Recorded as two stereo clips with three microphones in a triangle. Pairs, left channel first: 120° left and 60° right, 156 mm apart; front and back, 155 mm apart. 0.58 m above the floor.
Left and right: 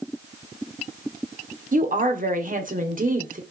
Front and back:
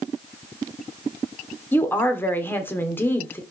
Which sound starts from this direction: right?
A woman speaking, at 1.7 s.